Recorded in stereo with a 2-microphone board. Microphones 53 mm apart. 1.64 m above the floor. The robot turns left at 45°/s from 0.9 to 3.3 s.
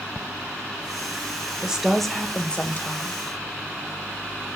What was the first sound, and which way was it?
A woman speaking, 160° right.